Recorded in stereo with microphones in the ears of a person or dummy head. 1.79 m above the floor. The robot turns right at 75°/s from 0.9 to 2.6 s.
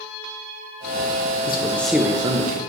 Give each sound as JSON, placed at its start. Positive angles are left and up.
{"t": 1.5, "sound": "a man speaking", "azimuth_deg": 145, "distance_m": 0.6}